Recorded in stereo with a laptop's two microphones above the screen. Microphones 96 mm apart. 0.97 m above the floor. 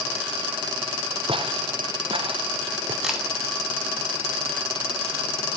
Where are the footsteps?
65° right (ahead or behind), 2.5 m; by 2.9 s 60° right (ahead or behind), 3 m.